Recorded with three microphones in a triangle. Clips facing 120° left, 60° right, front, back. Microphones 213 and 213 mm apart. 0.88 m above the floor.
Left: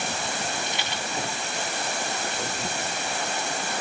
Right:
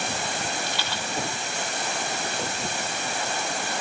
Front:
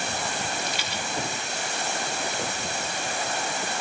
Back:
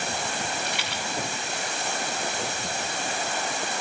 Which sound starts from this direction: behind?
A rattle, at 0.7 s.